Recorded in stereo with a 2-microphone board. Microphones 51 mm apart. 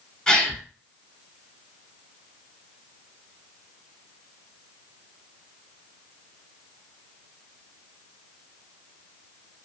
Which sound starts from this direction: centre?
A gasp, at 0.3 s.